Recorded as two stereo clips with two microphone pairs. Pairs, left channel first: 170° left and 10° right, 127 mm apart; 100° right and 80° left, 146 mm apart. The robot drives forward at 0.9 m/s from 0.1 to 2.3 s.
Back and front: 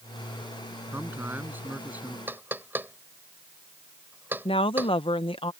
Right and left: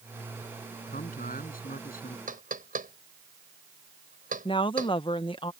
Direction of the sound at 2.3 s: 65° left.